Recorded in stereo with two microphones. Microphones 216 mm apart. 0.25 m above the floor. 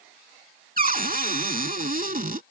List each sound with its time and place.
0.8 s a cupboard door: 40° right (ahead or behind)